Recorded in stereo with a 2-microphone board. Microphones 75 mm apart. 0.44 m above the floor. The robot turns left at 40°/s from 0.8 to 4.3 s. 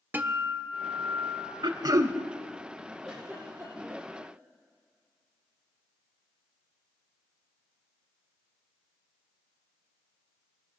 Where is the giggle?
Centre (ahead or behind), 7 m; by 4.3 s 50° right (ahead or behind), 7 m.